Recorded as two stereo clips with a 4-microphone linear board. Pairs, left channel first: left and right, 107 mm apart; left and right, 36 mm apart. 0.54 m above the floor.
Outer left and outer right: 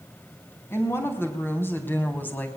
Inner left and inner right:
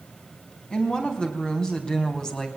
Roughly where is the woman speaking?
Left.